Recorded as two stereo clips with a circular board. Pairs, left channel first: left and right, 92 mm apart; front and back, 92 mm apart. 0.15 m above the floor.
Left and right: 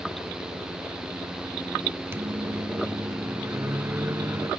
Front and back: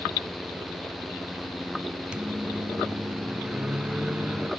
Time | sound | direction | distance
2.1 | a microwave | 115° right | 1.3 m